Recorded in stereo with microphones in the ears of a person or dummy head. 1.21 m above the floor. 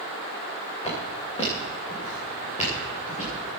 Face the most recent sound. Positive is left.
turn(degrees=35)  # may be behind; listen again after turning